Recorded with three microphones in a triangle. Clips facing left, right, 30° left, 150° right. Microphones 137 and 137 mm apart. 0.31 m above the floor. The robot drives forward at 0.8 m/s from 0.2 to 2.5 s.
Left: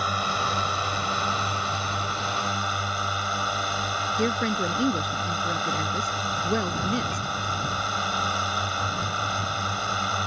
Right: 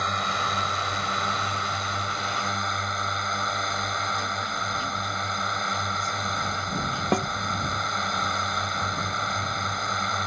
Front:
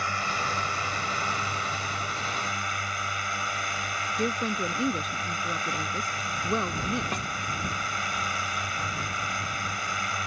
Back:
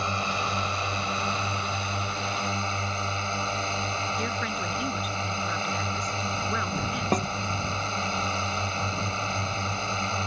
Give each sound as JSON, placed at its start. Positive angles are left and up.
{"t": 0.0, "sound": "a drone", "azimuth_deg": 170}
{"t": 4.2, "sound": "a woman speaking", "azimuth_deg": 85}
{"t": 7.1, "sound": "a snare drum", "azimuth_deg": -105}